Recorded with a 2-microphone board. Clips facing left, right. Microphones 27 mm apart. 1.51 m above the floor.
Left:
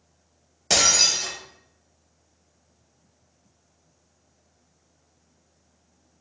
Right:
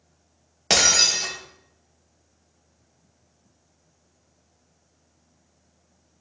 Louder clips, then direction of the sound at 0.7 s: Right 1 dB; 40° right (ahead or behind).